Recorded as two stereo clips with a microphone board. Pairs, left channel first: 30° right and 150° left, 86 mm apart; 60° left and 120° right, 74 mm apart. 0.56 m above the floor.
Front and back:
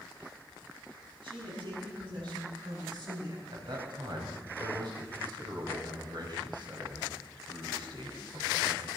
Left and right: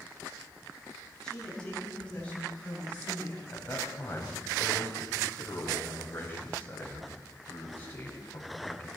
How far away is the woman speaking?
About 5 m.